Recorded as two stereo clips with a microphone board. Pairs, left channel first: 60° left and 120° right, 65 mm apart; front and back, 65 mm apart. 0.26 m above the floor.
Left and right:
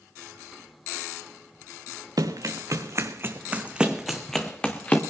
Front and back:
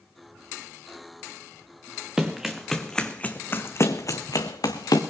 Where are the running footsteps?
100° right, 1.7 m; by 5.0 s 5° right, 1.7 m.